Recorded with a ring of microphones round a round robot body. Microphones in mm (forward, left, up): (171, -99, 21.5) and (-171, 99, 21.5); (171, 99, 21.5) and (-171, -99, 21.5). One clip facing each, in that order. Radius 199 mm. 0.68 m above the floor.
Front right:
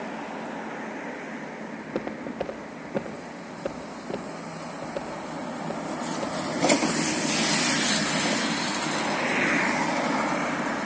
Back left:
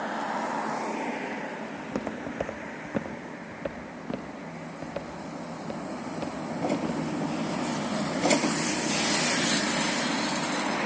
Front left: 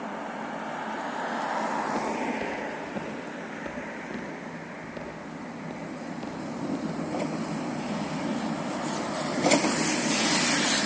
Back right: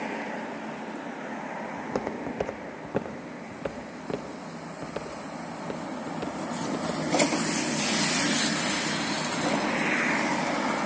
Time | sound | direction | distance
1.8 | footsteps | 150° right | 1.6 m